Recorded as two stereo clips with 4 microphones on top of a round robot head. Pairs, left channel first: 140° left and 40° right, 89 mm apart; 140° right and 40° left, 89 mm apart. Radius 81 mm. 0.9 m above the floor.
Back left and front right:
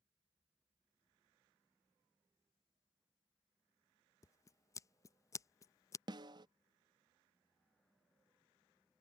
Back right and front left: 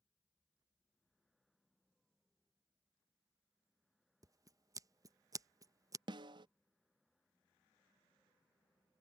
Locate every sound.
4.2 s scissors: 85° left
6.1 s a snare drum: straight ahead